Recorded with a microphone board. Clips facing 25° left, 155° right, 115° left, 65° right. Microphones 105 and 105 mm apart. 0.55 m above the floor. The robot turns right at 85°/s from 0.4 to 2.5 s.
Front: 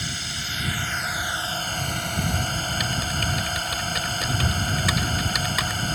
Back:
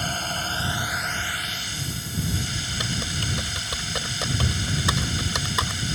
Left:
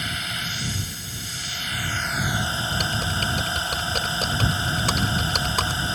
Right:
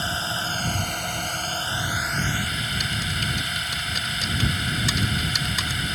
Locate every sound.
0.0 s a drone: 120° right; by 6.0 s 55° left
2.7 s typing on a keyboard: 140° left